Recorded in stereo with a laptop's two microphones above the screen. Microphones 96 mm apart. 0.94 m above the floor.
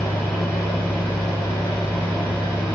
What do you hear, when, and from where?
0.0 s a fan: 25° left (ahead or behind), 1.2 m